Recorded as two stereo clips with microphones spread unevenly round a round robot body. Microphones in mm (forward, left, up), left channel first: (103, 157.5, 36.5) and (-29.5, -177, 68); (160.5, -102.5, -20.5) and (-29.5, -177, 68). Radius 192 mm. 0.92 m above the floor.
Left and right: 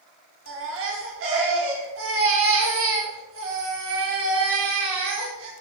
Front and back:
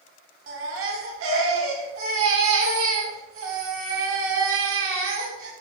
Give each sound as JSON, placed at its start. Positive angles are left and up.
{"t": 0.5, "sound": "a baby crying", "azimuth_deg": -170, "distance_m": 1.4}